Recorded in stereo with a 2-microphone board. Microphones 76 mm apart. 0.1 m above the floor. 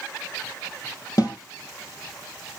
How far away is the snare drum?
About 3.5 m.